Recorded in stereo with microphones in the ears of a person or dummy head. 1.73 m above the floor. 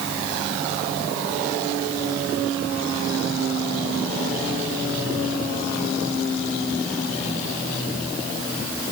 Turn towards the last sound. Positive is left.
No sound to turn to.